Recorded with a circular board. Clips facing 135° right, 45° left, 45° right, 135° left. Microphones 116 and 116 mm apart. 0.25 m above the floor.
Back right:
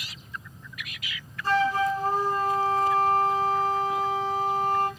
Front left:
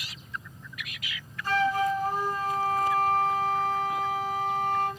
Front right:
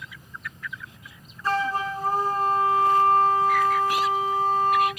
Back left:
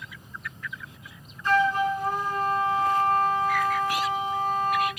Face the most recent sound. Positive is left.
turn(degrees=-90)